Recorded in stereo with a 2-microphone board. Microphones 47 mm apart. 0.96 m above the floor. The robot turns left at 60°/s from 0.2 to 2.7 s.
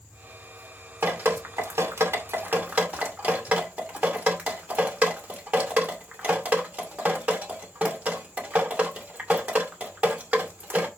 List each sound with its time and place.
1.0 s dripping: 50° right (ahead or behind), 2 m; by 10.9 s 30° right (ahead or behind), 2 m